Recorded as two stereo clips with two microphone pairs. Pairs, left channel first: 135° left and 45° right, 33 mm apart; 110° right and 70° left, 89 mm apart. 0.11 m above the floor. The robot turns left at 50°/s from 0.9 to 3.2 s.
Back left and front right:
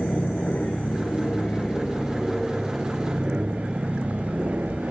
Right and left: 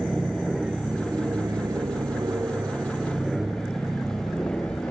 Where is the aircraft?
160° left; by 4.9 s 45° right.